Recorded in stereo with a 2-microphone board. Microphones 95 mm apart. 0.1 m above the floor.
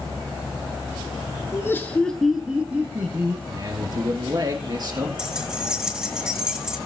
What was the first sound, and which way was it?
Laughter, 30° left (ahead or behind).